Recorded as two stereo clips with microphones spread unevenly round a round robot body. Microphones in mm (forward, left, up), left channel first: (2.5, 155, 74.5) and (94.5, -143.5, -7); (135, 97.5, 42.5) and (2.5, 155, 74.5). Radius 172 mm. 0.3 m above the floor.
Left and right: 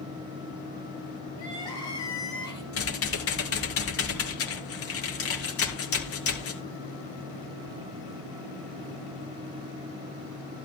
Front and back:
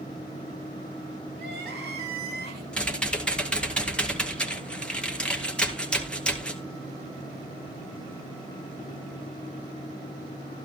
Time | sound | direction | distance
1.4 | crying | 175° right | 3 m
2.7 | typing on a keyboard | 60° left | 2.5 m